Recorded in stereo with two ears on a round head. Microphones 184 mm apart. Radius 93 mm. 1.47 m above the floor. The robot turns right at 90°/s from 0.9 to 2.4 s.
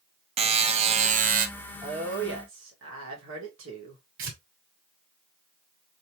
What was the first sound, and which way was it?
A buzzer, 130° right.